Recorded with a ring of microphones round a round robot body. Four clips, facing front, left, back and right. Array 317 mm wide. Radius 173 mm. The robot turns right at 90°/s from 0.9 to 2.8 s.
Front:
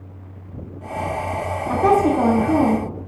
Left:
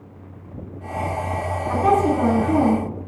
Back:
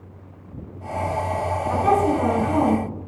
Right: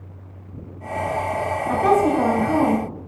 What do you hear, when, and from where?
1.7 s a woman speaking: 30° right, 2.5 m; by 2.9 s 70° left, 2.5 m